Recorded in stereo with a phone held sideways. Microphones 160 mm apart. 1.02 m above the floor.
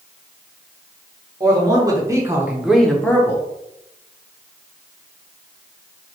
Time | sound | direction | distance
1.4 | a man speaking | 25° right (ahead or behind) | 1.0 m